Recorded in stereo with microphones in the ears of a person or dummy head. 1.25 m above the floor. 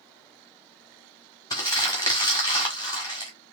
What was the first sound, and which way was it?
Crumpling, 20° left (ahead or behind).